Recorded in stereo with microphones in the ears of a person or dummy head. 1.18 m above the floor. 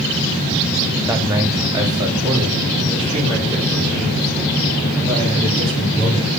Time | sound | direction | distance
1.1 | a man speaking | 5° right (ahead or behind) | 0.6 m